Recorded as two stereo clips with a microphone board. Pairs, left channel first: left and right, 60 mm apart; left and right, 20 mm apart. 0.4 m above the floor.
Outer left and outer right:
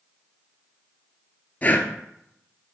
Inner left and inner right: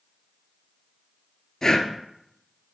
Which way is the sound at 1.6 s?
30° left (ahead or behind).